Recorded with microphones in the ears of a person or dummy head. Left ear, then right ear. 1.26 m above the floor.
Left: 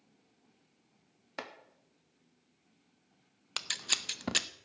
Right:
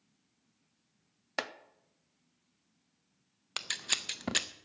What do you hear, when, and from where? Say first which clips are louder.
1.4 s chopping: right 7 dB; 30° right (ahead or behind), 0.6 m
3.6 s scissors: left 1 dB; 5° left (ahead or behind), 0.5 m